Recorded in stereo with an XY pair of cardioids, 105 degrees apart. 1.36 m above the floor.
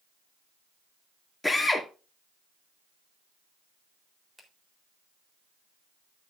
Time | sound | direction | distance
1.4 | a drill | 10° left | 2.5 m
4.4 | a finger snap | 15° right | 3.5 m